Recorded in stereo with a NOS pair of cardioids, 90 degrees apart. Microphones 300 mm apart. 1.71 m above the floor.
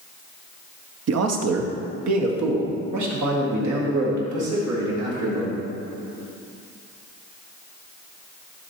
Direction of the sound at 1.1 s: 55° right.